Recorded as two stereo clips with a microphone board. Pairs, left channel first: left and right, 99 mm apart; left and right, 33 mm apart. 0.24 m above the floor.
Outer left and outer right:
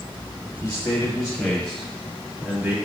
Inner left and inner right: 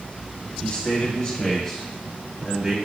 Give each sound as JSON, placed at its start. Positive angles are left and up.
{"t": 0.6, "sound": "a man speaking", "side_deg": 40, "distance_m": 1.6}